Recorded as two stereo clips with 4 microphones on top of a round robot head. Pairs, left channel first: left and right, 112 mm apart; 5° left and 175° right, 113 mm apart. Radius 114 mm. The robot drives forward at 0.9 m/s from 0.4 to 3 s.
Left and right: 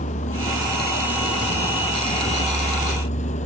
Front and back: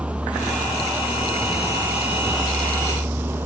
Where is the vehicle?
100° left; by 3.5 s 110° left.